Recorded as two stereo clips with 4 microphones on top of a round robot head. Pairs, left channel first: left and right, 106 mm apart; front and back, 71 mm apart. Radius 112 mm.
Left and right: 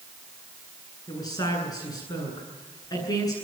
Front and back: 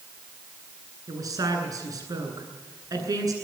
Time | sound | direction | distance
1.1 | a woman speaking | 145° left | 9.5 m